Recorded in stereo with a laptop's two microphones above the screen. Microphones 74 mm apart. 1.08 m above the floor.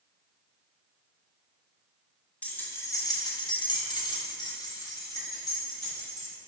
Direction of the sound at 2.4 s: 20° left (ahead or behind).